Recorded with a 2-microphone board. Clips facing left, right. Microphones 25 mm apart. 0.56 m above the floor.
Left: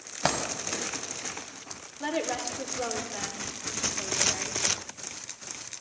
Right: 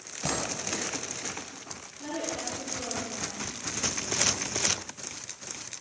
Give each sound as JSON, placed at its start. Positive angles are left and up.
{"t": 0.2, "sound": "a dropped coin", "side_deg": 55, "distance_m": 1.7}
{"t": 2.0, "sound": "a woman speaking", "side_deg": 55, "distance_m": 1.8}